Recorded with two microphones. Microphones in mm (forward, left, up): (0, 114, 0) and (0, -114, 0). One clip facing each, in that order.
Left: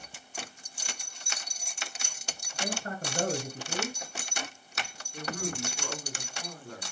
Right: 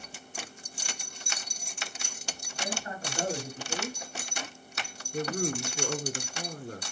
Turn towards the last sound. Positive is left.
turn(degrees=-45)  # may be behind; listen again after turning